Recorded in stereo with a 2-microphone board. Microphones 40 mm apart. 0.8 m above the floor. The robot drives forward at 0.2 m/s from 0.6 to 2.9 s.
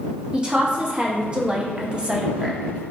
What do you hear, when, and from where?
0.3 s a woman speaking: 20° right (ahead or behind), 0.6 m